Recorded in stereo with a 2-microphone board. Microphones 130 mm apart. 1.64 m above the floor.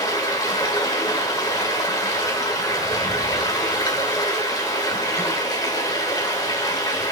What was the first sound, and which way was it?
Running water, 30° left (ahead or behind).